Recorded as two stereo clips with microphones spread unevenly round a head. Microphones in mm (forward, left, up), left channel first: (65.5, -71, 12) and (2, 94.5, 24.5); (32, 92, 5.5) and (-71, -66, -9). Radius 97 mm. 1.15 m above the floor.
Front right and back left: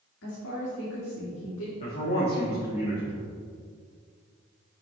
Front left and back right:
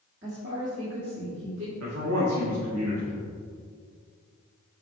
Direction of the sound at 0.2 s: 70° right.